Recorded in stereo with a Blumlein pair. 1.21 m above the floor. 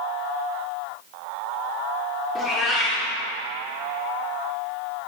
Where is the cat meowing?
25° left, 1.6 m.